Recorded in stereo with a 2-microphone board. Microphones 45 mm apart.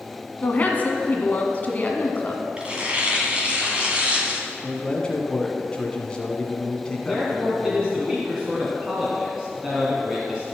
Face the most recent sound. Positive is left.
turn(degrees=-15)  # may be behind; listen again after turning